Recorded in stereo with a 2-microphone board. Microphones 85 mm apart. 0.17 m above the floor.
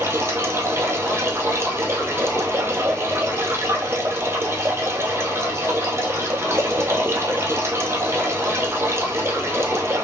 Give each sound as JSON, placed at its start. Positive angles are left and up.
{"t": 0.0, "sound": "running water", "side_deg": -30, "distance_m": 1.3}